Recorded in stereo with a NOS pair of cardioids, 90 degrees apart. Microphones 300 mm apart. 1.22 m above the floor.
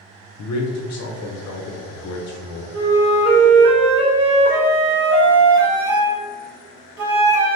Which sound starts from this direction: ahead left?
A man speaking, at 0.4 s.